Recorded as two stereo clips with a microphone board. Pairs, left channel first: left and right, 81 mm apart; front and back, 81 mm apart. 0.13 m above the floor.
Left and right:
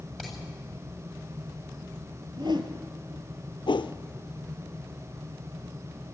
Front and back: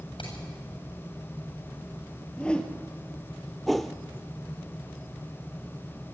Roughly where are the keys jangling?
No keys jangling in this recording.